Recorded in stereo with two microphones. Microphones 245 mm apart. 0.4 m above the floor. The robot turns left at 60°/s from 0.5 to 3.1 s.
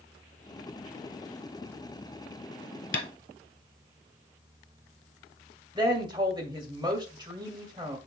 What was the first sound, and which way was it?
Tapping, 50° left (ahead or behind).